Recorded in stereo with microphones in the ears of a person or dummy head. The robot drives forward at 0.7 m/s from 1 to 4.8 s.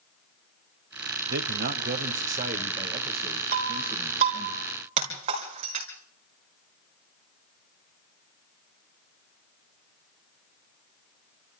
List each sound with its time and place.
1.3 s a man speaking: 60° right (ahead or behind), 1.4 m; by 4.5 s 20° right (ahead or behind), 3 m
3.5 s breaking glass: 50° right (ahead or behind), 4 m; by 5.9 s 40° right (ahead or behind), 4.5 m